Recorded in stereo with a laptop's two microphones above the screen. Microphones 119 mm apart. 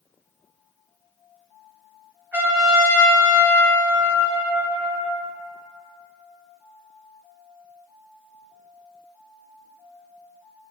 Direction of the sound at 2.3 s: 15° right (ahead or behind).